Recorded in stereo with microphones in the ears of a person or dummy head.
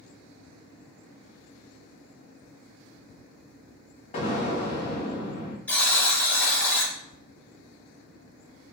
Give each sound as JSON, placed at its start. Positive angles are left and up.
{"t": 4.1, "sound": "an explosion", "side_deg": 45, "distance_m": 0.6}
{"t": 5.7, "sound": "a buzzer", "side_deg": 5, "distance_m": 0.9}